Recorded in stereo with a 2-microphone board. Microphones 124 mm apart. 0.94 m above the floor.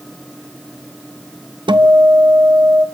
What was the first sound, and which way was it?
A guitar, 40° right (ahead or behind).